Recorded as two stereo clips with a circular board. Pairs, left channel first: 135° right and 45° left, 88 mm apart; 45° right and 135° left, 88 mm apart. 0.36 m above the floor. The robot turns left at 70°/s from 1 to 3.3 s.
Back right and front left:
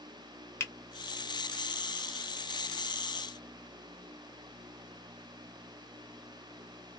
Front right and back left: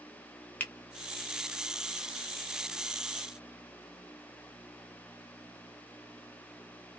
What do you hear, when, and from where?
0.6 s a finger snap: 100° right, 0.8 m